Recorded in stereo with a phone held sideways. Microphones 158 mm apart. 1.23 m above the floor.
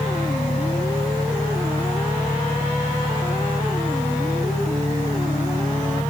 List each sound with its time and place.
0.0 s an engine running: 10° right (ahead or behind)